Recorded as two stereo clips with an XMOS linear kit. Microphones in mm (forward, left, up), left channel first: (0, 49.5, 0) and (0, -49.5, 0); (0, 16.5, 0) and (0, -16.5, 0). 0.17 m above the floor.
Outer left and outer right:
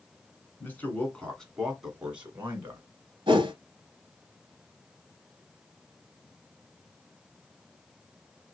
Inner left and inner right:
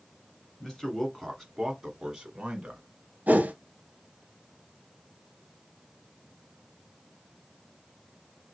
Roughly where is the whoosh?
Right.